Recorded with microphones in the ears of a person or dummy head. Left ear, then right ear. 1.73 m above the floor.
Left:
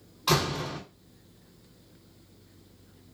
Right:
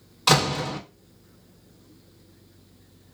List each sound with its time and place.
0.3 s a door slam: 50° right (ahead or behind), 0.9 m